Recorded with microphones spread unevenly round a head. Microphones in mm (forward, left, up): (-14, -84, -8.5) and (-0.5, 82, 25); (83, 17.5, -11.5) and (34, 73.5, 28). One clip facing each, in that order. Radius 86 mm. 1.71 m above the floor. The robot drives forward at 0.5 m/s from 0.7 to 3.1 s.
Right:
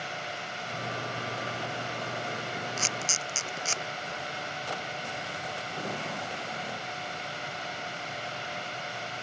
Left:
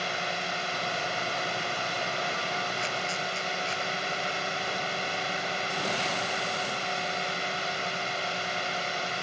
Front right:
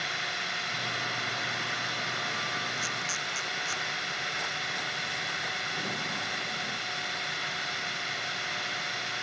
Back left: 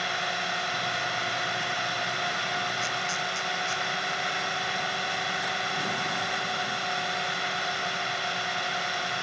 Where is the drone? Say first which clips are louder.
Left 5 dB, back left 5 dB; 100° left.